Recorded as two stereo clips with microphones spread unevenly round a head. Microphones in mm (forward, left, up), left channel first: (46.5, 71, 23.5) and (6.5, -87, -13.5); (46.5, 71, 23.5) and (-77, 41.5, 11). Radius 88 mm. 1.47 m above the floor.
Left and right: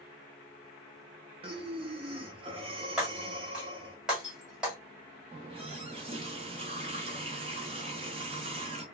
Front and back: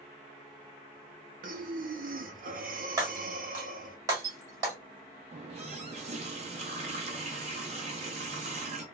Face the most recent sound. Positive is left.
turn(degrees=-160)